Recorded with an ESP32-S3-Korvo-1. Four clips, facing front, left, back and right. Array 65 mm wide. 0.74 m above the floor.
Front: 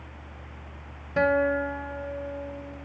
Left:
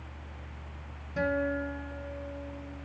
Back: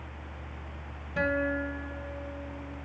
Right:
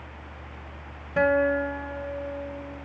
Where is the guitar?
50° right, 0.6 m.